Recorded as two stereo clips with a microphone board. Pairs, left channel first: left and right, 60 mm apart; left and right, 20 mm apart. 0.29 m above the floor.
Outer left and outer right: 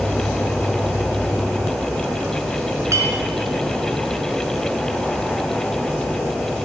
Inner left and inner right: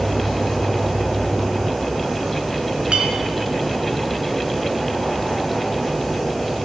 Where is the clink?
55° right (ahead or behind), 2.5 m.